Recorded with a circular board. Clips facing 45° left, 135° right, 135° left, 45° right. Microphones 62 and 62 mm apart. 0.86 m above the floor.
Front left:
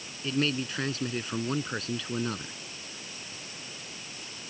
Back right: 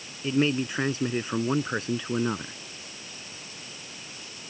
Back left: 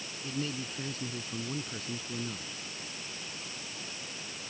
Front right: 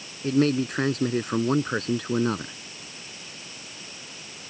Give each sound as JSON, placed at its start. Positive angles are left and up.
{"t": 0.2, "sound": "a man speaking", "azimuth_deg": -65}